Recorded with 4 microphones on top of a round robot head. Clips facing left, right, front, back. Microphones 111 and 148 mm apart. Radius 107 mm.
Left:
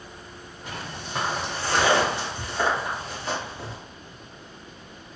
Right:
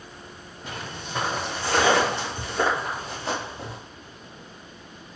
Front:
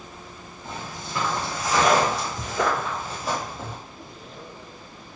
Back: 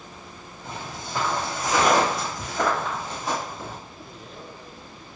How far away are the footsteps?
About 1.9 m.